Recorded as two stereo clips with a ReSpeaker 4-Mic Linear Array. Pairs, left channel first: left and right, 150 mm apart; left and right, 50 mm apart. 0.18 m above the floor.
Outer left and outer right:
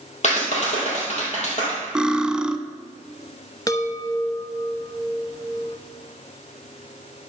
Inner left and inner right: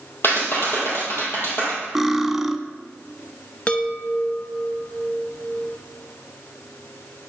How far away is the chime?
About 0.8 m.